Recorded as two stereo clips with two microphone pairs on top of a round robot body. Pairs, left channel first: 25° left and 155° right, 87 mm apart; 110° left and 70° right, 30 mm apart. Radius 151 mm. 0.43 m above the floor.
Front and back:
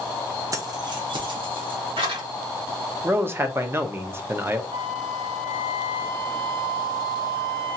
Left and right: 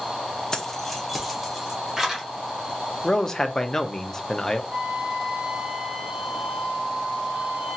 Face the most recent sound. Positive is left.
turn(degrees=-135)